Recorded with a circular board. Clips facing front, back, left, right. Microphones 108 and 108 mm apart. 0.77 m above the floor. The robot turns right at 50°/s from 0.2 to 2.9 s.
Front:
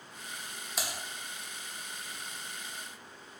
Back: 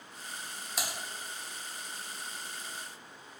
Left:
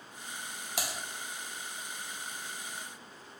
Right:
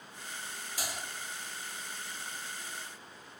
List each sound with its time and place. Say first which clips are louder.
0.8 s typing on a keyboard: even, left 3 dB; 90° left, 0.6 m; by 0.9 s 100° left, 0.6 m